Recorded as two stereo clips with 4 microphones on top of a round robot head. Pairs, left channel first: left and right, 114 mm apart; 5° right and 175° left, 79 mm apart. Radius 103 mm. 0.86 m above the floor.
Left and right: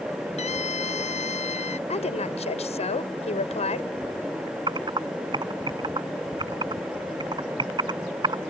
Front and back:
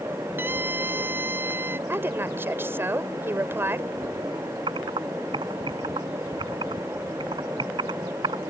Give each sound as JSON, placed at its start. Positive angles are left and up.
{"t": 0.4, "sound": "a scream", "azimuth_deg": 115}
{"t": 1.9, "sound": "a woman speaking", "azimuth_deg": 115}
{"t": 4.7, "sound": "typing on a keyboard", "azimuth_deg": -140}